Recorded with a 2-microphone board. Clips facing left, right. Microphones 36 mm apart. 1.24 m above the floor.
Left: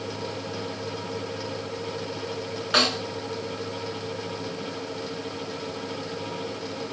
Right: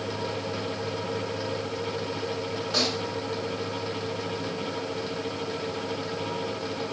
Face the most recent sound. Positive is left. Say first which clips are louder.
# left 6 dB
turn(degrees=60)  # may be behind; listen again after turning